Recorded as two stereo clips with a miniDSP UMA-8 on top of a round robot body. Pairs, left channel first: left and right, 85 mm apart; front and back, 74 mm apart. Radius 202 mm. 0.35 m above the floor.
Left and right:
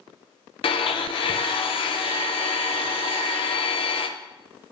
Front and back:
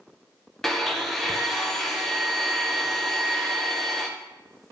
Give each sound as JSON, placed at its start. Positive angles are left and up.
{"t": 0.6, "sound": "a blender", "azimuth_deg": 85, "distance_m": 0.8}